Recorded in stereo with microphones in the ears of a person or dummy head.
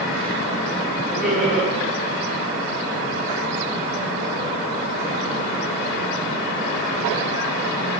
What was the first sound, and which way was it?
Laughter, 5° right (ahead or behind).